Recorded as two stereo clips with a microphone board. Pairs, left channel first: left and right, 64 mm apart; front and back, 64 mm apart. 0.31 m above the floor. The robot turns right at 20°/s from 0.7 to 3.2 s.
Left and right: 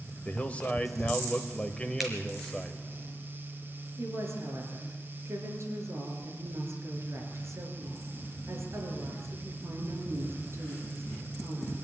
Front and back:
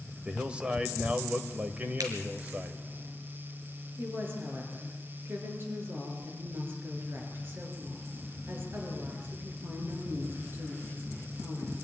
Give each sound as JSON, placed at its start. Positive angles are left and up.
{"t": 0.2, "sound": "a man speaking", "azimuth_deg": 130, "distance_m": 1.4}
{"t": 2.0, "sound": "a finger snap", "azimuth_deg": -175, "distance_m": 4.0}
{"t": 4.0, "sound": "a woman speaking", "azimuth_deg": -130, "distance_m": 5.5}